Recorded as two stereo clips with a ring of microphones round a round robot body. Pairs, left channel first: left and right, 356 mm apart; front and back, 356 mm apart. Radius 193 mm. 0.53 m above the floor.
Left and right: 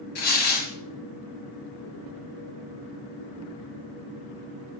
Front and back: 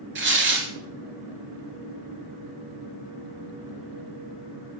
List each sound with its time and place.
0.1 s tearing paper: 120° left, 2 m